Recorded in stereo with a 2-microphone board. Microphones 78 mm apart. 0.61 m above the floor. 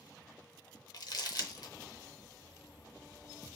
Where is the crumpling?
60° left (ahead or behind), 0.7 m.